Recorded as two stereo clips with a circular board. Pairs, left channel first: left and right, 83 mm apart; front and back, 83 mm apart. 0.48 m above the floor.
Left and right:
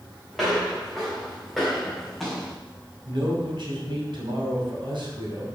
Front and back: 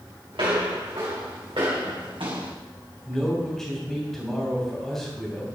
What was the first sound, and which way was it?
Footsteps, straight behind.